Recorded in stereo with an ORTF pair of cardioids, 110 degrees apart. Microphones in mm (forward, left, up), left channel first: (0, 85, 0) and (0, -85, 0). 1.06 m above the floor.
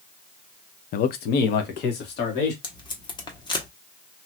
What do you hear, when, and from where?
0.9 s a man speaking: 55° left, 0.5 m; by 2.5 s 75° left, 2 m
2.6 s tape being pulled: 25° left, 1.1 m